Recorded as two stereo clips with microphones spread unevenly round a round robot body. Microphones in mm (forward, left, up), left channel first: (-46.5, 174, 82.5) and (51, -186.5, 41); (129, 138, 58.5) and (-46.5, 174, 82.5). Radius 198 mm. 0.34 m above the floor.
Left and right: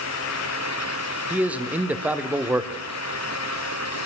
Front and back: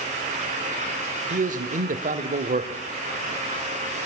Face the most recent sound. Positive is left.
turn(degrees=-155)